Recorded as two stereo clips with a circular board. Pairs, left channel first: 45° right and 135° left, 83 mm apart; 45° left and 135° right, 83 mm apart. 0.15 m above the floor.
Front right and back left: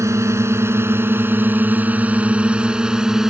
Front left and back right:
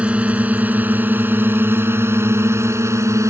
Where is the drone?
160° left; by 3.3 s 145° right.